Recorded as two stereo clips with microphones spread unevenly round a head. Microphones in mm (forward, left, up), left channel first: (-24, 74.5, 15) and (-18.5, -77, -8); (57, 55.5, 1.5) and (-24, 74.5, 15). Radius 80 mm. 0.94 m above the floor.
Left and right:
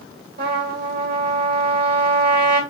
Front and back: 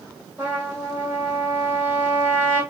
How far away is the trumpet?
About 1.6 m.